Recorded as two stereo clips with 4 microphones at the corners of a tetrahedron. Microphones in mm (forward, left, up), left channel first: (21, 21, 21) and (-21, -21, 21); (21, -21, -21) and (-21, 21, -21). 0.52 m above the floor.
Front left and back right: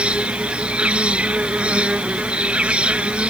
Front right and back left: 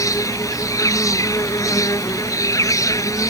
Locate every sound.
0.0 s an insect: 65° right